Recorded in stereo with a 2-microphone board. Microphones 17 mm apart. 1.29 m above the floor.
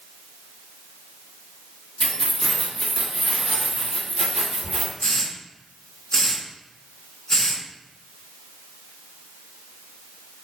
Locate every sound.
2.0 s keys jangling: 65° left (ahead or behind), 1.0 m; by 4.9 s 30° right (ahead or behind), 2 m
5.0 s a hiss: 45° left (ahead or behind), 1.1 m